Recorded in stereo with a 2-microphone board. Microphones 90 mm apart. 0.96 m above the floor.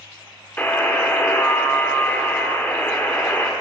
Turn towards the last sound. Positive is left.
turn(degrees=20)  # may be behind; listen again after turning